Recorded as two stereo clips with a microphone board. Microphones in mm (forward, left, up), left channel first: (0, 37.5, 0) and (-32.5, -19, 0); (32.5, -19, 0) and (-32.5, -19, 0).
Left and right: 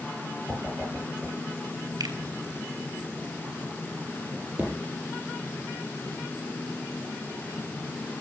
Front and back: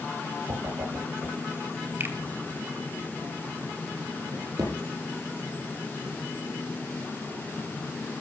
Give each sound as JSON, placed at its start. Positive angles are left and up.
{"t": 0.5, "sound": "a whoosh", "azimuth_deg": 170, "distance_m": 9.5}
{"t": 2.0, "sound": "a finger snap", "azimuth_deg": -130, "distance_m": 3.0}
{"t": 4.3, "sound": "a drawer", "azimuth_deg": 170, "distance_m": 8.5}